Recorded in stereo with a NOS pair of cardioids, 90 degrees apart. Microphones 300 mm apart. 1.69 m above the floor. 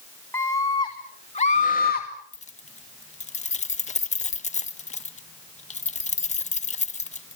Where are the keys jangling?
25° left, 1.7 m.